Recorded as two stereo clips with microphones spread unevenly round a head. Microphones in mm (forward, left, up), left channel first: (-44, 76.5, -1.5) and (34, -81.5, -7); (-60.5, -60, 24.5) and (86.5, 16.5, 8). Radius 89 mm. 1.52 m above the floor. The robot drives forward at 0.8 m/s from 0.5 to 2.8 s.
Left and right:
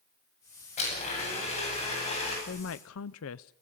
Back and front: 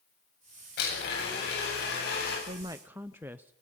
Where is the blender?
170° left, 9 m.